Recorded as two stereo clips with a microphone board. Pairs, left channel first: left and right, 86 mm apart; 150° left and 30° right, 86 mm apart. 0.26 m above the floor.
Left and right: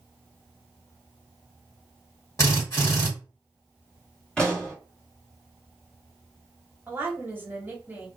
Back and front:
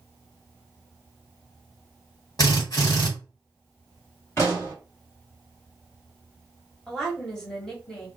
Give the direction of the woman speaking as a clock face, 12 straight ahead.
4 o'clock.